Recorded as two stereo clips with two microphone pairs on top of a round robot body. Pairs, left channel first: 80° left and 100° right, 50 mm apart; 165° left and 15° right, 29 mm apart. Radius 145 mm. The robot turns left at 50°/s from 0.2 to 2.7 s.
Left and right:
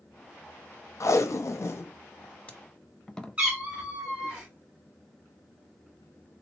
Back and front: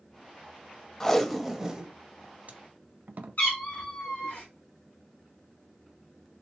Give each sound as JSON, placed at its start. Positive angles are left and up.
{"t": 1.0, "sound": "tape being pulled", "azimuth_deg": 85, "distance_m": 0.6}
{"t": 3.4, "sound": "a cat meowing", "azimuth_deg": -165, "distance_m": 1.6}